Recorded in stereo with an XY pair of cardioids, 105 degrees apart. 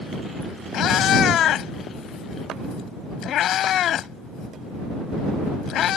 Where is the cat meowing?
70° left.